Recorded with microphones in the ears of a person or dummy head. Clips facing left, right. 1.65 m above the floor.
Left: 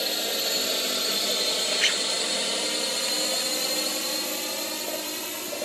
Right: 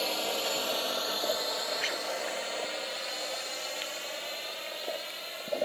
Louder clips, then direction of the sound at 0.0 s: Left 1 dB; 20° left (ahead or behind).